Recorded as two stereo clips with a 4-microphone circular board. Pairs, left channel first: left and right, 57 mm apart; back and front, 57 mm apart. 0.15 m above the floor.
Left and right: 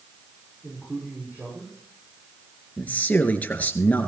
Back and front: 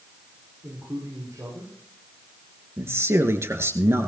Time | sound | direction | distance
0.6 | a man speaking | 30° right | 6.5 m
2.8 | a man speaking | 30° left | 2 m